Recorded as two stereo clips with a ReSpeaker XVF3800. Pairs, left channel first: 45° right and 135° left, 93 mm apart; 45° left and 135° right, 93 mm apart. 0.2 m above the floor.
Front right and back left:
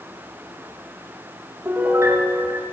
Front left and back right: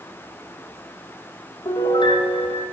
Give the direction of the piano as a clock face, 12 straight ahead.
10 o'clock.